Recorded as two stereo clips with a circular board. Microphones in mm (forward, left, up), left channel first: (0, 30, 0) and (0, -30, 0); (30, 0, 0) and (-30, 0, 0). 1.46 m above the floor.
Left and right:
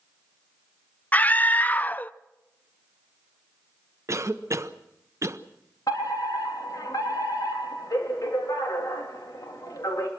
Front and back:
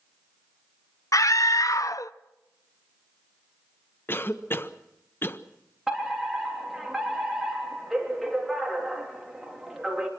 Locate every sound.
1.1 s a scream: 25° left, 0.6 m
4.1 s a cough: 50° right, 0.9 m
5.9 s a fire alarm: 95° left, 4 m